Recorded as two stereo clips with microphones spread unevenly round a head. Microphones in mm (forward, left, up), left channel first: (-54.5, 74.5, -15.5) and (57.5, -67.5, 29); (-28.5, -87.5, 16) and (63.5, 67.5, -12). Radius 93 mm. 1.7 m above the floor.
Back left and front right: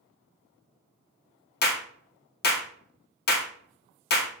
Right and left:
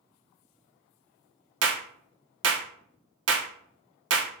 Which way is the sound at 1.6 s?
85° left.